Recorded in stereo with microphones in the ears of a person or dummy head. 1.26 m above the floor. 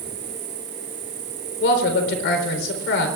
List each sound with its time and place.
0.0 s an insect: 50° right (ahead or behind), 1.5 m
1.6 s a woman speaking: 65° left (ahead or behind), 4 m